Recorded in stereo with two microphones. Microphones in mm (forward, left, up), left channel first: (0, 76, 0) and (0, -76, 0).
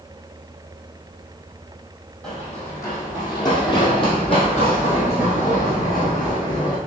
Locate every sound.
2.2 s running footsteps: 10° left (ahead or behind), 2.0 m; by 6.8 s 65° left (ahead or behind), 3 m